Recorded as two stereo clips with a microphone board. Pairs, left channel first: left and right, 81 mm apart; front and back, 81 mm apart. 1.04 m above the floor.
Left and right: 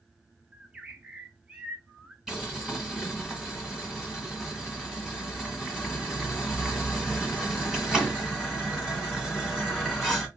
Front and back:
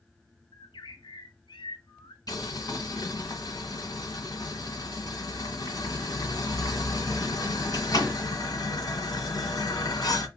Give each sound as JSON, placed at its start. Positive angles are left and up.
{"t": 0.5, "sound": "a bird", "azimuth_deg": -10, "distance_m": 0.5}
{"t": 2.3, "sound": "boiling", "azimuth_deg": -5, "distance_m": 1.4}